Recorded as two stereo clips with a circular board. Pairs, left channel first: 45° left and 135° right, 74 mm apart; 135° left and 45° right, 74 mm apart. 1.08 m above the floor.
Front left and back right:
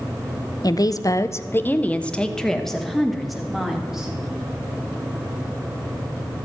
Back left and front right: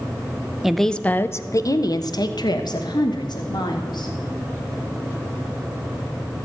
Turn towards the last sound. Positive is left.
turn(degrees=140)